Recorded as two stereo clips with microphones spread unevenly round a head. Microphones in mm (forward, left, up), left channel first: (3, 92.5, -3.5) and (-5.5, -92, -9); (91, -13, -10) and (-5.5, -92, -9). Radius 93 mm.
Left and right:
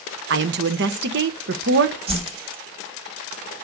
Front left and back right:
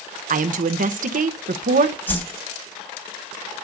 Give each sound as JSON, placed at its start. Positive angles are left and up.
{"t": 0.3, "sound": "a woman speaking", "azimuth_deg": -125, "distance_m": 1.1}
{"t": 2.1, "sound": "a whoosh", "azimuth_deg": -35, "distance_m": 3.0}